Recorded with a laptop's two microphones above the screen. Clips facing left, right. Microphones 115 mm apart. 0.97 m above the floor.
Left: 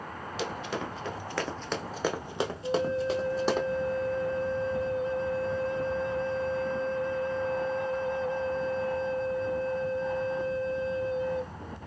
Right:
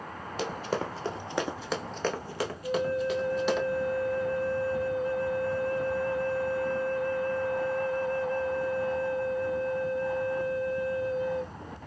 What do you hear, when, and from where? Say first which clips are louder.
0.4 s running footsteps: right 3 dB; 45° right (ahead or behind), 1.4 m; by 3.6 s 40° left (ahead or behind), 2 m
2.6 s a flute: even; 20° left (ahead or behind), 0.7 m